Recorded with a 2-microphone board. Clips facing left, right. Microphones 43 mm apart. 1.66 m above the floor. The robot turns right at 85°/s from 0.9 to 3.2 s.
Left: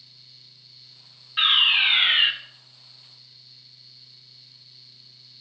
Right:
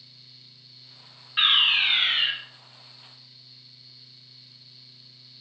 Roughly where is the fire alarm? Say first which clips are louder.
Left 1 dB; ahead.